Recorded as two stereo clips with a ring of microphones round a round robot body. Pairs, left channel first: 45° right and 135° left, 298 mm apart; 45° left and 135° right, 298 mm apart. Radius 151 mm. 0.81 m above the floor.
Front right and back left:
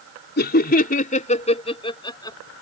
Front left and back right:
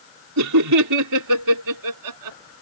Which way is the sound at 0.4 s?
100° right.